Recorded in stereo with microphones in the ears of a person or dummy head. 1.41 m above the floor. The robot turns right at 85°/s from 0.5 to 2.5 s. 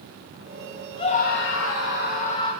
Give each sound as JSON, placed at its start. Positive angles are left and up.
{"t": 1.0, "sound": "a scream", "azimuth_deg": 25, "distance_m": 9.0}